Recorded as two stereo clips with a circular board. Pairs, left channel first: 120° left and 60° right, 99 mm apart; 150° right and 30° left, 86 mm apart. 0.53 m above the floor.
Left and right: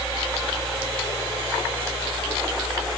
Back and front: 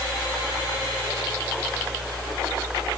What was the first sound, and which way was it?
Only background noise.